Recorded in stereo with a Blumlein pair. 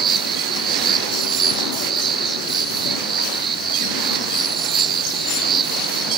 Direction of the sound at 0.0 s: 20° right.